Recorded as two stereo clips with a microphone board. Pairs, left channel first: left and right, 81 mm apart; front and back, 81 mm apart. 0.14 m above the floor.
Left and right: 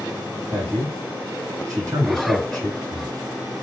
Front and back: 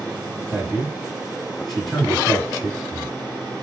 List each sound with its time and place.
0.5 s a man speaking: 90° right, 2.5 m